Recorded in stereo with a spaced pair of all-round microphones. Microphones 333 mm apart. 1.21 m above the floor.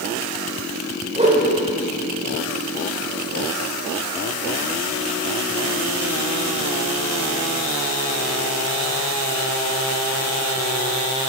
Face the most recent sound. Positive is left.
turn(degrees=-20)  # may be behind; listen again after turning